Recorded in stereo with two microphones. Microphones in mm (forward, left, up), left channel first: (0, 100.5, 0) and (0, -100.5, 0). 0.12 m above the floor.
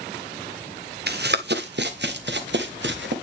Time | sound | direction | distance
1.1 | running footsteps | 55° right (ahead or behind) | 1.1 m